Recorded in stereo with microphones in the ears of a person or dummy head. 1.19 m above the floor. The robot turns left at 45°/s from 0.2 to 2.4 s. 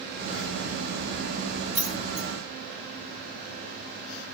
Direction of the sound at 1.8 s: 45° right (ahead or behind).